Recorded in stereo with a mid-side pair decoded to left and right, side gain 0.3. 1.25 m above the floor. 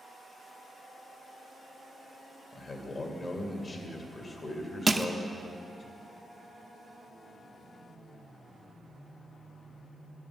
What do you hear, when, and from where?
2.5 s a man speaking: 50° left, 2 m
4.9 s crushing: 30° right, 0.7 m